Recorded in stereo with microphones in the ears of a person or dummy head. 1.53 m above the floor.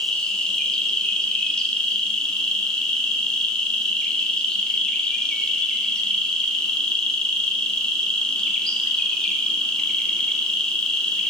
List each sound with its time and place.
0.0 s an insect: 5° left (ahead or behind), 0.8 m